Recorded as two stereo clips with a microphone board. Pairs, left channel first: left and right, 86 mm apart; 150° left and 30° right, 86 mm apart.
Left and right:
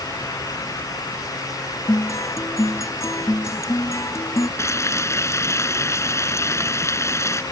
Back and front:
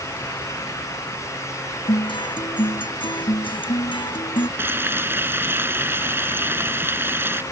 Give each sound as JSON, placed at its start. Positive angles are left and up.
{"t": 1.9, "sound": "a guitar", "azimuth_deg": 145}
{"t": 4.6, "sound": "frying", "azimuth_deg": 35}